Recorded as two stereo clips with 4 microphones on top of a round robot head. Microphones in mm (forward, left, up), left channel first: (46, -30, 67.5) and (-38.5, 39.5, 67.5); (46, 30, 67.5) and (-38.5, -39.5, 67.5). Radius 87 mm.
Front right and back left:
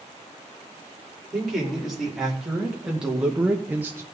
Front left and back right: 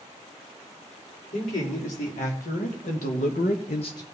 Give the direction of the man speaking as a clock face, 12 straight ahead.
10 o'clock.